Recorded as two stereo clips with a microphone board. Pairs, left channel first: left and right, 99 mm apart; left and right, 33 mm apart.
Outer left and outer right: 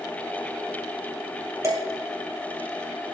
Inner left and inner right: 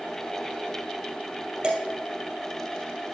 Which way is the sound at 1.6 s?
30° right (ahead or behind).